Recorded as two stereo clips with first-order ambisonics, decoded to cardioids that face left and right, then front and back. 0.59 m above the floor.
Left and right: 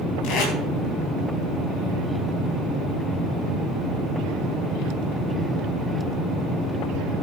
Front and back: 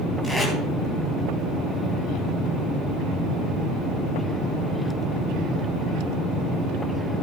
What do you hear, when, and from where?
0.2 s tape being pulled: 100° left, 3.5 m